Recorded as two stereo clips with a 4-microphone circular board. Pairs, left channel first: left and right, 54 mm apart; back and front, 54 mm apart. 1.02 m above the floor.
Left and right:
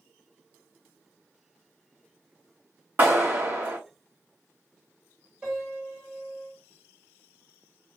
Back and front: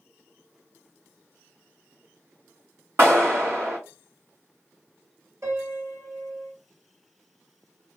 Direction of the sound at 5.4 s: 25° right.